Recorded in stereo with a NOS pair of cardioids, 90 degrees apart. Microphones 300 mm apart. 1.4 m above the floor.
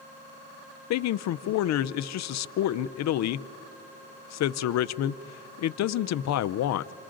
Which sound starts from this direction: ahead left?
A man speaking, at 0.9 s.